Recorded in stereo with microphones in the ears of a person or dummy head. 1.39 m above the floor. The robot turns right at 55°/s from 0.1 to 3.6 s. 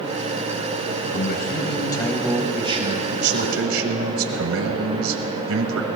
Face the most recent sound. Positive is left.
turn(degrees=-105)